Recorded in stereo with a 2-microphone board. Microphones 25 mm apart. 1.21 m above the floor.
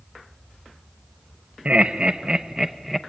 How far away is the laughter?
About 1.1 m.